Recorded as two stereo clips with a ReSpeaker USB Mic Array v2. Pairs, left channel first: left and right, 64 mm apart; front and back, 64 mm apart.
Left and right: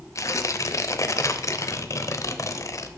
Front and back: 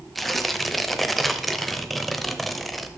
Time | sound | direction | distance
0.1 | tearing paper | 90° left | 0.6 m